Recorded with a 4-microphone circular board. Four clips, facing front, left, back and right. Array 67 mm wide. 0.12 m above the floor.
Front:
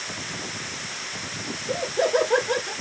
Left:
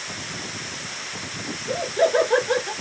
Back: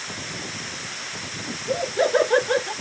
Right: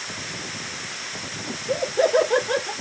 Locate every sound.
1.5 s laughter: 145° left, 1.8 m; by 2.7 s straight behind, 1.5 m